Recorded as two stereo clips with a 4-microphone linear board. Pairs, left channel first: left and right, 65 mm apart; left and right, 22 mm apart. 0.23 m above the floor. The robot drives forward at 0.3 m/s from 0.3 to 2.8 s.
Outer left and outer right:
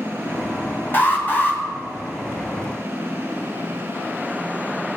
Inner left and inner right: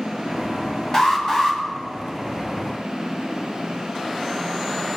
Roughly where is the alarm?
Left.